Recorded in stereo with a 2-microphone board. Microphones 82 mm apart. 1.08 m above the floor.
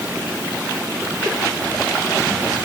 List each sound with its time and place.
Only background noise.